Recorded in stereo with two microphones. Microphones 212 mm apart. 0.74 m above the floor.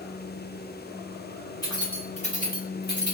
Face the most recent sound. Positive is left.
turn(degrees=60)  # may be behind; listen again after turning